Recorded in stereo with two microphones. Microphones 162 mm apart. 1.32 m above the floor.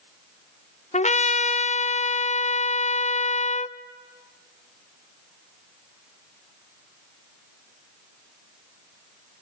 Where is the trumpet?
45° left (ahead or behind), 0.6 m.